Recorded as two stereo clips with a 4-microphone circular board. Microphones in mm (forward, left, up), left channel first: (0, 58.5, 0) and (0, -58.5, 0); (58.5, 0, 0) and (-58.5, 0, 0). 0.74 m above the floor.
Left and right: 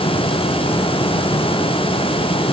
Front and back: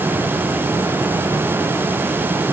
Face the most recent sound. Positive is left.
No sound to turn to.